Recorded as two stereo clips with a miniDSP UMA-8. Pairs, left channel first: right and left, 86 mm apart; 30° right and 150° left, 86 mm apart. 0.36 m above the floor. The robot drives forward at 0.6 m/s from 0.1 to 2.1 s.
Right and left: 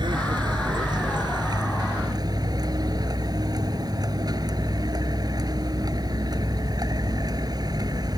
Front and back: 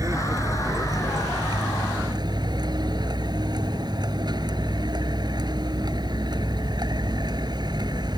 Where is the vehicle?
110° left; by 8.2 s 125° left.